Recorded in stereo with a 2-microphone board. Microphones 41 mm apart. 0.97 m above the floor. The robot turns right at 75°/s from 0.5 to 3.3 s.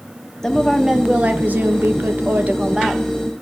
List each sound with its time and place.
0.4 s a woman speaking: 165° left, 0.7 m; by 3.0 s 5° right, 0.7 m